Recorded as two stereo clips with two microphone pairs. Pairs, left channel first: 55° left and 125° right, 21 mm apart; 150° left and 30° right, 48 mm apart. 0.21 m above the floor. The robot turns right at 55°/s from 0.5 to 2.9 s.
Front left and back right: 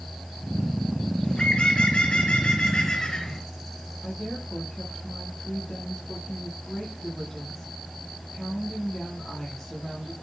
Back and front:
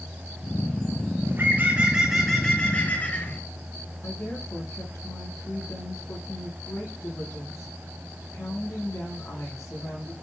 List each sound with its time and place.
1.2 s a bird: 5° left, 4 m; by 3.4 s 95° left, 4 m
4.0 s a woman speaking: 125° left, 8.5 m